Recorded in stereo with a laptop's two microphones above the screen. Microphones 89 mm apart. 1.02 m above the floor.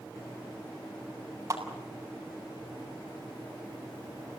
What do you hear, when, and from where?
1.5 s a clap: 35° right (ahead or behind), 7.5 m